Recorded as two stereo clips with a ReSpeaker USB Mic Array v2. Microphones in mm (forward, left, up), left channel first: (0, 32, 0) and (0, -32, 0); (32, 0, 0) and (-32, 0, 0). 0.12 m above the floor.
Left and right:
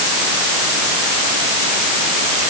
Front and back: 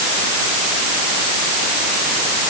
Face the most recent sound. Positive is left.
No sound to turn to.